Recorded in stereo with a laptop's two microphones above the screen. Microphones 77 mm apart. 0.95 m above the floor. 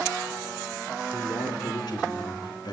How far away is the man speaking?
About 3.5 m.